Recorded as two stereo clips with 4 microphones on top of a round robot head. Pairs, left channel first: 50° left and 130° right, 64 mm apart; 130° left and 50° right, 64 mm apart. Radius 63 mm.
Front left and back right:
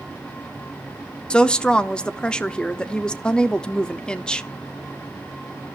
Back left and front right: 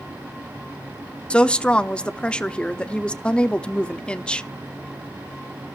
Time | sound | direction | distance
1.3 | a woman speaking | 95° left | 0.8 m